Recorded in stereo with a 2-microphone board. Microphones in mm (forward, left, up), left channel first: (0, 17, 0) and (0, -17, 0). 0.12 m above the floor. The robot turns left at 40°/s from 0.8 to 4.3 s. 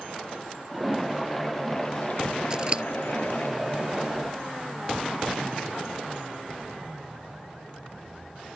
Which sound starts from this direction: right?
Scissors, at 2.5 s.